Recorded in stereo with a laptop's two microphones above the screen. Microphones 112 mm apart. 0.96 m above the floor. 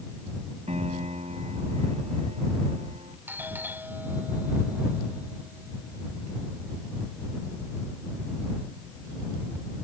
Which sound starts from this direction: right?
A piano, at 0.7 s.